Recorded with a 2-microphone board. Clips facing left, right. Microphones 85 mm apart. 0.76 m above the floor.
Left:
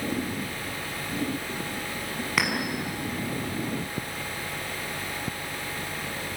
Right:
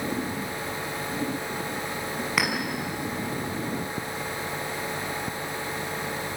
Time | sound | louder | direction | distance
2.4 | a clink | even | centre (ahead or behind) | 5.5 m